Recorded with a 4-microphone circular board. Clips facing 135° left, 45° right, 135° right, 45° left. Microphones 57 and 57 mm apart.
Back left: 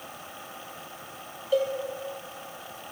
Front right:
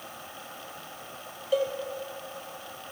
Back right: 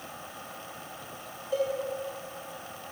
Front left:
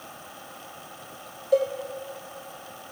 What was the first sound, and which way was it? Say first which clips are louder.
A cowbell: back left 1 dB, front left 7 dB; 45° left.